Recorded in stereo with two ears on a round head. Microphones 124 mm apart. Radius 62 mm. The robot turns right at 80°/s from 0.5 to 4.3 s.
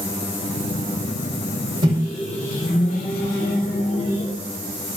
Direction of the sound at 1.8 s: 35° right.